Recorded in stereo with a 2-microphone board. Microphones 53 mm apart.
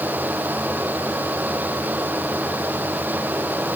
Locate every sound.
Only background noise.